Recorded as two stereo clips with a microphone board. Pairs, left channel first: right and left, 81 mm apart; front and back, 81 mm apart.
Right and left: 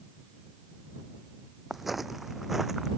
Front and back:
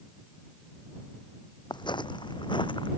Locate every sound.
1.7 s footsteps: 5° left